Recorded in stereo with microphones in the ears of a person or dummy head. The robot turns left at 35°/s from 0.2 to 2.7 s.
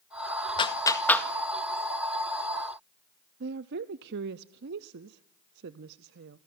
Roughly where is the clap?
Left.